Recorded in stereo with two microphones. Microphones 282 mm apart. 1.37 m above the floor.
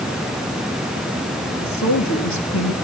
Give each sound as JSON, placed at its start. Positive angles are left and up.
{"t": 1.6, "sound": "a woman speaking", "side_deg": 70, "distance_m": 3.0}